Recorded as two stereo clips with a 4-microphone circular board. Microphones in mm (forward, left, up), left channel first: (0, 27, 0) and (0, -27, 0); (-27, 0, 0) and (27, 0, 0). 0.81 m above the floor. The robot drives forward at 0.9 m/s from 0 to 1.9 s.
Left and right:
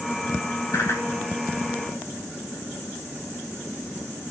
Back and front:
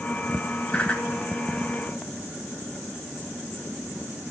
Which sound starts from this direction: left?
A whoosh, at 0.7 s.